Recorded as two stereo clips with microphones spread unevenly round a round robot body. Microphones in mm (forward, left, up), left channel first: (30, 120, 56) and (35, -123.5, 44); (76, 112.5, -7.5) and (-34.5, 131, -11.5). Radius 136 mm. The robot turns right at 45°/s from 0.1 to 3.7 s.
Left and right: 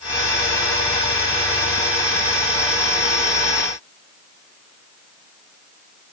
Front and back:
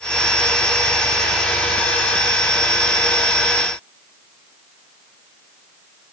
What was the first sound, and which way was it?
Only background noise.